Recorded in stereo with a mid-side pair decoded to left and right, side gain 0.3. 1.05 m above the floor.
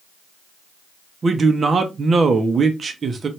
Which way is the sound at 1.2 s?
55° right.